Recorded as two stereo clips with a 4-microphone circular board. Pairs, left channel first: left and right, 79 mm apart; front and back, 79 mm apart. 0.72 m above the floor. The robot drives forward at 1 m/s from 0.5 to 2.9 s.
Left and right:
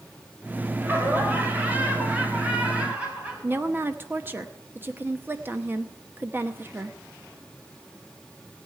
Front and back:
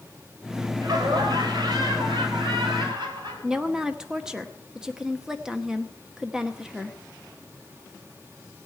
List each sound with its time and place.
0.8 s laughter: 150° right, 3.5 m; by 4.4 s 160° right, 5.5 m
3.4 s a woman speaking: 110° right, 0.9 m